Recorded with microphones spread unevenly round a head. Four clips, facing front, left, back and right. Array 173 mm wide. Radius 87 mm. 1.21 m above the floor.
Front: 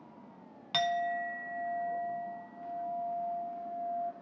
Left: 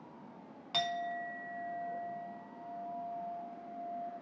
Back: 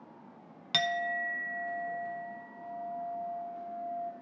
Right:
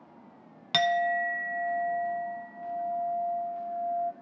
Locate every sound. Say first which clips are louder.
0.7 s a clink: right 11 dB, front 1 dB; 110° right, 0.8 m